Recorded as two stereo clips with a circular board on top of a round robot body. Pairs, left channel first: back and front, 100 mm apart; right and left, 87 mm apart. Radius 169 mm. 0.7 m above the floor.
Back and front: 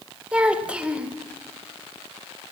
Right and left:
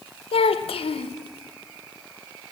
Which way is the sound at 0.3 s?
80° right.